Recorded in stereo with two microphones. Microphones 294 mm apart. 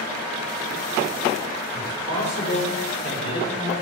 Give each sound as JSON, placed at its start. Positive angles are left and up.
{"t": 1.8, "sound": "a man speaking", "side_deg": 40, "distance_m": 3.0}